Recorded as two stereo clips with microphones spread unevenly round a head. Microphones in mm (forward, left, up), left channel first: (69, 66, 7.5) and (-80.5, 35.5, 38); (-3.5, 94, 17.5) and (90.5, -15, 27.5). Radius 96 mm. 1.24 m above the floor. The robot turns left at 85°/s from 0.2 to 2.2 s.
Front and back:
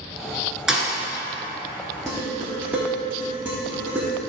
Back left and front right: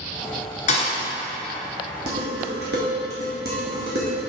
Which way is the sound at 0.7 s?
120° left.